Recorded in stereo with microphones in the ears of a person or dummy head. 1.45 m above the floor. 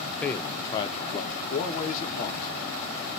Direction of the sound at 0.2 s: 10° left (ahead or behind).